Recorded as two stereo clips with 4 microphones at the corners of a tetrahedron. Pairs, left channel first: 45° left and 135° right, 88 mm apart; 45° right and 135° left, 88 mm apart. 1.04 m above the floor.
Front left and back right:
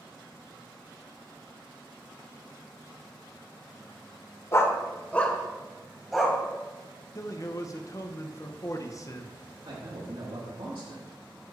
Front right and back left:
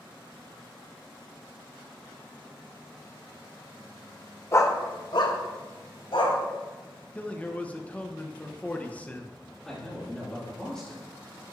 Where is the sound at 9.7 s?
125° right, 2 m.